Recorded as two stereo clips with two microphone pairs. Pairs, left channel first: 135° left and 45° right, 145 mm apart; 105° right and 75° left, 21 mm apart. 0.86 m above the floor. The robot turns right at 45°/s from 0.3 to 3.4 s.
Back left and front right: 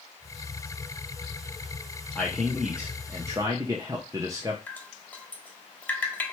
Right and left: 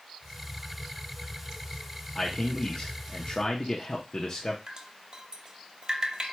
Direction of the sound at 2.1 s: 155° right.